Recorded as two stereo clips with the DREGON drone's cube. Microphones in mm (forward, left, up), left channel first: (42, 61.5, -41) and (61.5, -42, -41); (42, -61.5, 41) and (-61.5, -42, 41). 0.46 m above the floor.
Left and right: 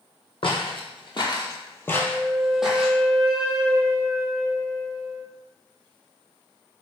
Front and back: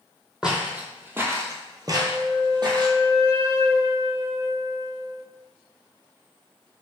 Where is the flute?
160° right, 1.3 m.